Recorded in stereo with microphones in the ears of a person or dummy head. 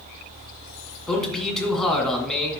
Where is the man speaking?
5° left (ahead or behind), 2.5 m.